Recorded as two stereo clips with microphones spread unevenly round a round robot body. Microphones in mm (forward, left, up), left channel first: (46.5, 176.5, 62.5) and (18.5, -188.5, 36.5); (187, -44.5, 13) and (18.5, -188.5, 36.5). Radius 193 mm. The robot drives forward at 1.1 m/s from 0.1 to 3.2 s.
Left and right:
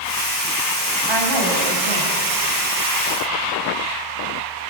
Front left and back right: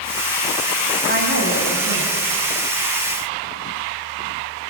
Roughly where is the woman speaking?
Right.